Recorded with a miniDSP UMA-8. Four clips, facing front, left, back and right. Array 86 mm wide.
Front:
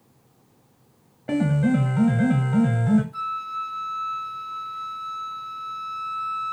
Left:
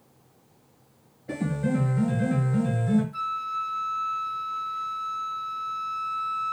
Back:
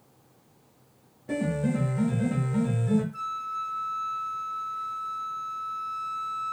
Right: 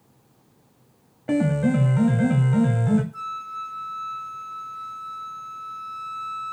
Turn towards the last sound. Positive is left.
turn(degrees=45)